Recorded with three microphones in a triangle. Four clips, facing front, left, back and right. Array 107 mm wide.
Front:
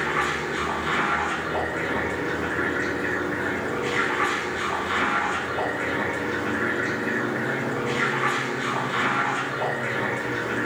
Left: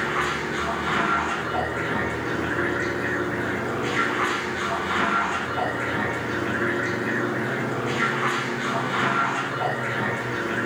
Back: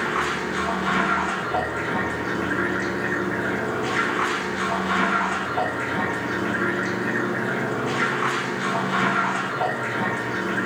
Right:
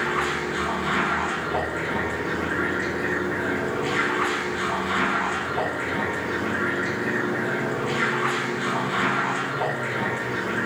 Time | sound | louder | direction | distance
0.0 | running water | even, back 1 dB | 175° right | 10 m